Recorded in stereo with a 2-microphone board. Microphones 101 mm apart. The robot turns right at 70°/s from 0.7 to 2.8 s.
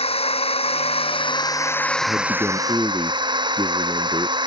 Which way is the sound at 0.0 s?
85° left.